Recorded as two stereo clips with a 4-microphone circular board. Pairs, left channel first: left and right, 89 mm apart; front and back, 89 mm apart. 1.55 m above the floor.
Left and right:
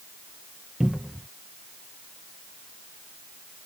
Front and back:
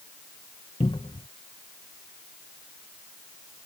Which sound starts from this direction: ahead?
A cupboard door, at 0.8 s.